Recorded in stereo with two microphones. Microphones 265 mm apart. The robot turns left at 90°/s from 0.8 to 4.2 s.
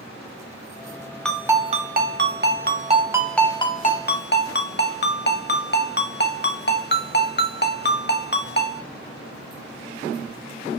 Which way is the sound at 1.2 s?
5° left.